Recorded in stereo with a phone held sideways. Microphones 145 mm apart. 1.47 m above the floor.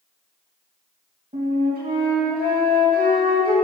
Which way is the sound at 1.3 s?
90° right.